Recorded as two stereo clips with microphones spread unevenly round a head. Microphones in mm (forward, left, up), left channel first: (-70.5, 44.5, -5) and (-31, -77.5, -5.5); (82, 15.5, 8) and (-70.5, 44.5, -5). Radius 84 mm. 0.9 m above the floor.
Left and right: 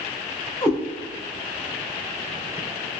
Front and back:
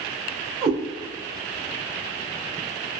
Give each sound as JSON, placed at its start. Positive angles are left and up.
{"t": 0.6, "sound": "a cat meowing", "azimuth_deg": 140, "distance_m": 0.8}